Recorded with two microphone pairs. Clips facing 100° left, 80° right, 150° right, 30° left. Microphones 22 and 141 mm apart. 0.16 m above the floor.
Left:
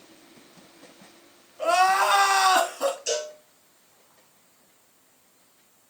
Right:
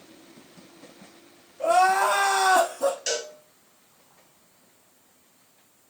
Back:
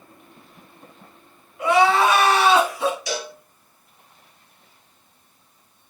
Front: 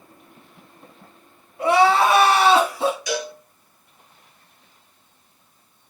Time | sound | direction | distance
1.6 | crying | 80° left | 1.2 m
3.1 | a cowbell | 90° right | 2 m